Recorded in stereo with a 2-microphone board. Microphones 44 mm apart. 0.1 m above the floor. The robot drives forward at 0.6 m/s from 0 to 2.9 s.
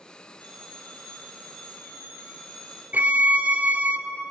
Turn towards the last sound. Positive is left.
turn(degrees=-40)  # may be behind; listen again after turning